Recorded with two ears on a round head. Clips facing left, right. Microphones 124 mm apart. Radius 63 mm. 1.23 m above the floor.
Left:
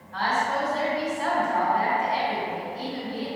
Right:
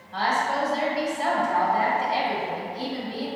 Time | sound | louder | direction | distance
0.1 | a woman speaking | right 1 dB | 30° right (ahead or behind) | 1.5 m